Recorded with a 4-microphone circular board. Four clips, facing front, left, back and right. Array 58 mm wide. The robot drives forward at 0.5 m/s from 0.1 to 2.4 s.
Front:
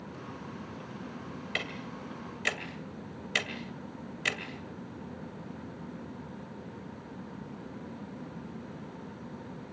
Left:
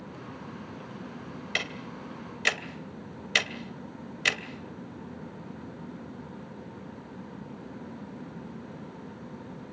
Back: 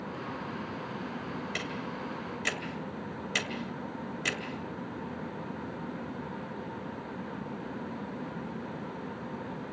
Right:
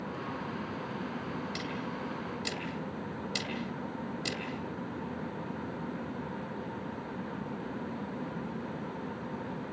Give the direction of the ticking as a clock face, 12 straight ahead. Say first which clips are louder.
Left 3 dB, back 1 dB; 10 o'clock.